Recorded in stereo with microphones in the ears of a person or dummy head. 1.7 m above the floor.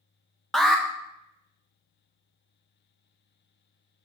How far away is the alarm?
About 0.7 m.